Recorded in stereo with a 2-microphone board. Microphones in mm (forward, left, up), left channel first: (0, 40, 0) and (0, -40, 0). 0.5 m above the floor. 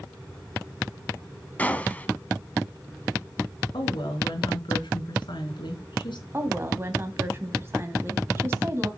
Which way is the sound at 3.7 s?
80° left.